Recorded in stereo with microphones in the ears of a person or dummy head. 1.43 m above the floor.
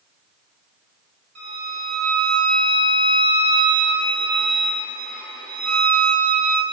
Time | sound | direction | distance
1.4 | a violin | 50° right (ahead or behind) | 1.7 m